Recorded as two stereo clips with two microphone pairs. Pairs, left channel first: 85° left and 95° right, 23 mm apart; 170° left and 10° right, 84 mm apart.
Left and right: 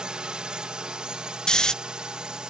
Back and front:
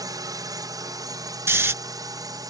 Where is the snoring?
40° left.